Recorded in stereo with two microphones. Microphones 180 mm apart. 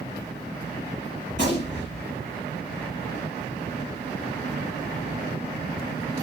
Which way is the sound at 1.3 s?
70° left (ahead or behind).